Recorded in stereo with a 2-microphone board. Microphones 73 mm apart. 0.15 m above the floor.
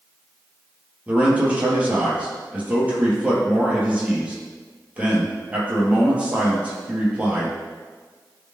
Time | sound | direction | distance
1.1 | a man speaking | 15° right (ahead or behind) | 3.5 m